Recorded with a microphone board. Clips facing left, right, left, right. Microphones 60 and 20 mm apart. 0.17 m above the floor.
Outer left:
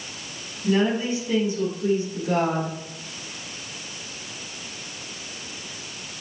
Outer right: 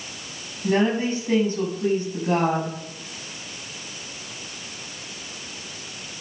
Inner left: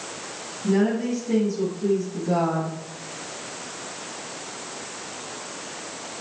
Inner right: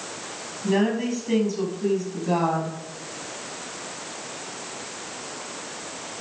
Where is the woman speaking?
40° right (ahead or behind), 5 m.